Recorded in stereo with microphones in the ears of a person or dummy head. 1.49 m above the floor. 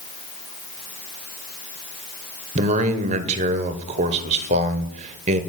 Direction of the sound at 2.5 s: 35° right (ahead or behind).